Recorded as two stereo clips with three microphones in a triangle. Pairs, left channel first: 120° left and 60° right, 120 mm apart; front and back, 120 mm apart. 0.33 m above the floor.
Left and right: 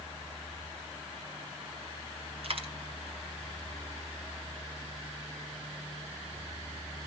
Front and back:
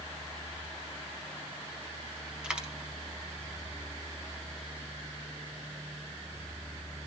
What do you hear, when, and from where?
2.4 s a dropped coin: 95° right, 2 m